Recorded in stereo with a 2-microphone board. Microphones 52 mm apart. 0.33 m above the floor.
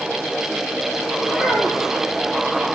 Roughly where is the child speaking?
Right.